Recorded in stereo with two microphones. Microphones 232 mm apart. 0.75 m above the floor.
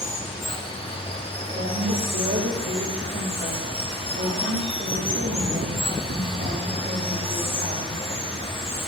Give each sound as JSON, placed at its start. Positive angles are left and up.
{"t": 0.0, "sound": "running water", "side_deg": 25, "distance_m": 0.9}
{"t": 1.6, "sound": "a woman speaking", "side_deg": -60, "distance_m": 2.5}